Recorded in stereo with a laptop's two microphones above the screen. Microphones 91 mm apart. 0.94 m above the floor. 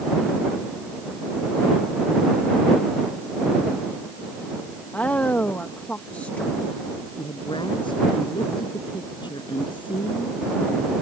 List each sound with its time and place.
4.9 s a woman speaking: 15° left (ahead or behind)
7.2 s a woman speaking: 60° left (ahead or behind)